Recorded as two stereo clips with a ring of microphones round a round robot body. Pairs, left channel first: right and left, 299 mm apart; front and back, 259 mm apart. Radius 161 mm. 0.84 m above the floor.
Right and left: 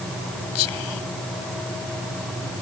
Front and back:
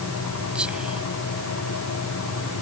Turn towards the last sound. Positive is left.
turn(degrees=-95)